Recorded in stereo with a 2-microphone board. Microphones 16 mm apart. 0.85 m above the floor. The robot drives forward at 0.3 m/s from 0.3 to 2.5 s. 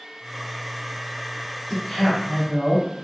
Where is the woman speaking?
40° left (ahead or behind), 1.3 m; by 2.8 s 35° left (ahead or behind), 1.4 m.